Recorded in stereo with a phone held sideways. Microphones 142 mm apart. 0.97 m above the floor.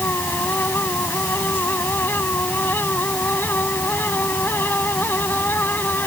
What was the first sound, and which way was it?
A fan, 15° left (ahead or behind).